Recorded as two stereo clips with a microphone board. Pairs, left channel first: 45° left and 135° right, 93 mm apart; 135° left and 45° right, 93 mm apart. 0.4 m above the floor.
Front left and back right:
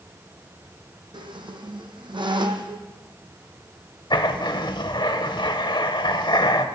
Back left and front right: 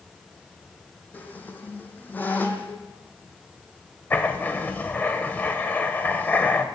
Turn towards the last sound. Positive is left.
turn(degrees=65)